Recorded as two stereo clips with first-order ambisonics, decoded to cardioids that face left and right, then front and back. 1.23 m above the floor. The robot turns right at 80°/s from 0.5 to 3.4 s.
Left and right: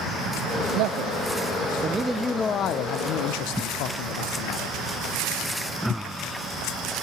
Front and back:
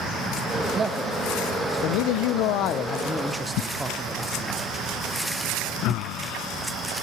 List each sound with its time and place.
0.7 s a man speaking: 115° right, 0.6 m; by 4.7 s 95° left, 0.6 m